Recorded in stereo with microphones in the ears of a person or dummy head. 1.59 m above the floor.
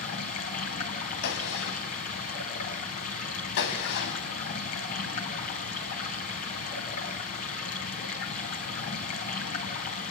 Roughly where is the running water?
Left.